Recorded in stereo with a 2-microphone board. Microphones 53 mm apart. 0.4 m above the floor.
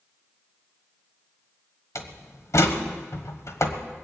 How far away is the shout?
I don't hear a shout.